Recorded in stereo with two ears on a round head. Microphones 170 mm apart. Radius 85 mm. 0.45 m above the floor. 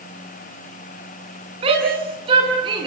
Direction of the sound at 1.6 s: 30° right (ahead or behind).